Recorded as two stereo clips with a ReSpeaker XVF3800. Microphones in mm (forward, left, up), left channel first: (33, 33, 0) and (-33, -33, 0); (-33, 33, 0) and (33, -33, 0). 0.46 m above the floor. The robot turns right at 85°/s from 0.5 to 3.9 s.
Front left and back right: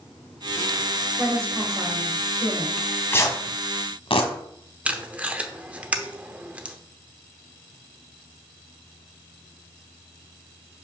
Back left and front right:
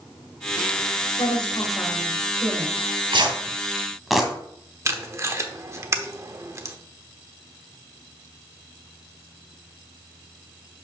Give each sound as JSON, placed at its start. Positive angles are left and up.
{"t": 1.2, "sound": "a woman speaking", "azimuth_deg": 145, "distance_m": 1.9}
{"t": 2.8, "sound": "tearing paper", "azimuth_deg": -50, "distance_m": 1.6}
{"t": 4.8, "sound": "tape being pulled", "azimuth_deg": -70, "distance_m": 0.9}